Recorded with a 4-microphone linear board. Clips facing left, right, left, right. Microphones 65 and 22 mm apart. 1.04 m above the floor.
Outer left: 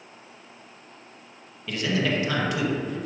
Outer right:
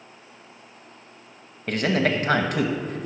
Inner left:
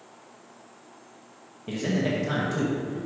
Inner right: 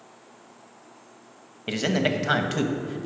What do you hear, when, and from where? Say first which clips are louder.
1.7 s a man speaking: outer right 3 dB, inner right 3 dB; 50° right (ahead or behind), 0.9 m